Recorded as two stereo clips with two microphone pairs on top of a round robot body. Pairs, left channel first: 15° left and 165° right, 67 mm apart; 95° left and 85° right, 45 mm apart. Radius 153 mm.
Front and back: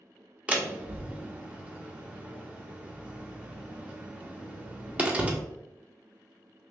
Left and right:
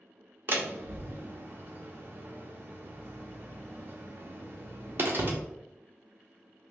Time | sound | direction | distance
0.5 | a door slam | 110° right | 1.0 m